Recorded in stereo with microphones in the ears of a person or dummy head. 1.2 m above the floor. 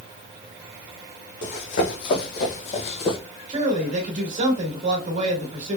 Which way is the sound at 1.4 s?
60° left (ahead or behind).